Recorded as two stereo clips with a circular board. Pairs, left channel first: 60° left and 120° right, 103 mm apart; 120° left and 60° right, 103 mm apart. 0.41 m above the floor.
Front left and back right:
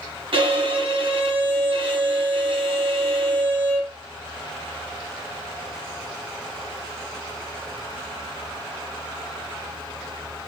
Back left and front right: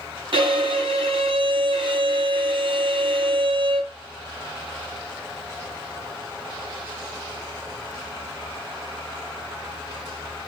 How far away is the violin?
About 2 m.